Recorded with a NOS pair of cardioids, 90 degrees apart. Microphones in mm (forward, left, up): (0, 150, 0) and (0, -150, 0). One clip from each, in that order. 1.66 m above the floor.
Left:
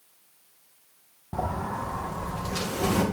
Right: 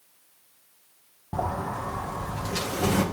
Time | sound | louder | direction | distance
1.3 | a sliding door | right 1 dB | 10° right | 2 m